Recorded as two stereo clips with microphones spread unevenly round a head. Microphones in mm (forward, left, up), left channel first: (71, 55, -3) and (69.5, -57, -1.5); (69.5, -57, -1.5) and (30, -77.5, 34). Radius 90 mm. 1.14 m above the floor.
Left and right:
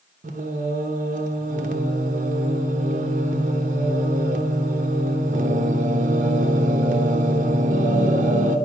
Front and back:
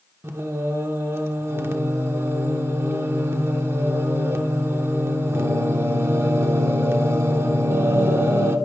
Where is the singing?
120° right, 0.9 m.